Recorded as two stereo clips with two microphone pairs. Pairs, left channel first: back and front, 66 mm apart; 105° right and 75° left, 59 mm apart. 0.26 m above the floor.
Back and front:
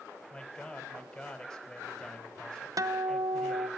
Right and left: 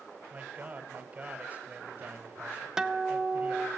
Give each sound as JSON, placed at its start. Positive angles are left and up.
{"t": 0.3, "sound": "a man speaking", "azimuth_deg": 105, "distance_m": 1.3}
{"t": 2.8, "sound": "a guitar", "azimuth_deg": 0, "distance_m": 0.6}